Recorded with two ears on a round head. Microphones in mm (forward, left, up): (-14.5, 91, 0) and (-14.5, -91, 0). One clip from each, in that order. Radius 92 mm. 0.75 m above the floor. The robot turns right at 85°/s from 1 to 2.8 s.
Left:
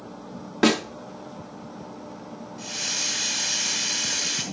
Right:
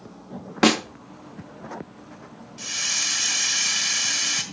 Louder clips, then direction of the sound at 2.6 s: Right 3 dB; 35° right (ahead or behind).